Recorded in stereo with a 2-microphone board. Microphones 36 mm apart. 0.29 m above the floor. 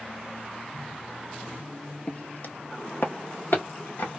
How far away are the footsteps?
About 0.5 m.